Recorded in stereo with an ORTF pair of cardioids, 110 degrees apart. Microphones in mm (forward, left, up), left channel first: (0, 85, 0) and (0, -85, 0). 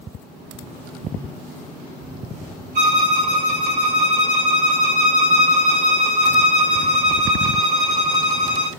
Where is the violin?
50° right, 1.9 m.